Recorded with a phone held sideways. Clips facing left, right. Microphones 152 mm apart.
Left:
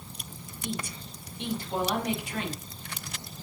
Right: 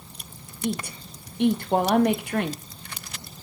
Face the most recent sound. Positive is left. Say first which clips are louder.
# right 7 dB
turn(degrees=-60)  # may be behind; listen again after turning